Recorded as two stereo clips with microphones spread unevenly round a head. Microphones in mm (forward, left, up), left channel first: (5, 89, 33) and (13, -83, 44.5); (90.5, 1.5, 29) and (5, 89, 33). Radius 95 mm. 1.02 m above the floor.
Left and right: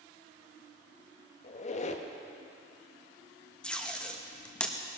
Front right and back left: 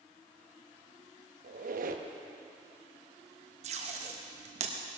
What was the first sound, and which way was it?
A squeak, 145° left.